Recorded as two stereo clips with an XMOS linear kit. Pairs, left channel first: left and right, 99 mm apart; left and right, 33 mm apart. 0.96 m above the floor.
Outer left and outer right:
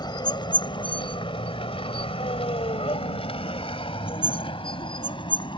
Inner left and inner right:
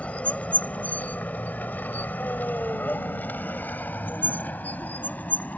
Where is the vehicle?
50° left (ahead or behind); by 5.6 s 60° left (ahead or behind).